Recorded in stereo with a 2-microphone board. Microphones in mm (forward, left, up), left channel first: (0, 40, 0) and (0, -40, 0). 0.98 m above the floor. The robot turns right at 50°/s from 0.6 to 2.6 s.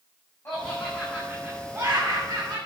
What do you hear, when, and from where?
0.5 s laughter: 150° left, 7.5 m; by 2.6 s 110° right, 7.5 m